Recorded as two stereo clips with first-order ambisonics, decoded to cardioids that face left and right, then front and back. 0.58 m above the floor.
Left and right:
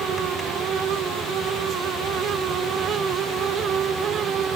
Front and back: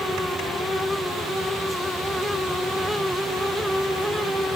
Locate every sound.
Only background noise.